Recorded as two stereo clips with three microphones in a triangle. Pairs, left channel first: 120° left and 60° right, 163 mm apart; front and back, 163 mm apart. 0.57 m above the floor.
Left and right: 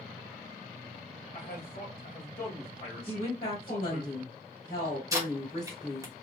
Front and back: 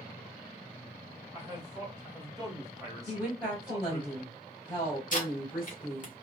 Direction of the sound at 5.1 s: 5° left.